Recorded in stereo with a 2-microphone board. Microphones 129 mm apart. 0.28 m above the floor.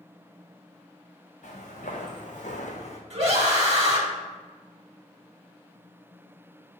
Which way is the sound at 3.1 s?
45° right (ahead or behind).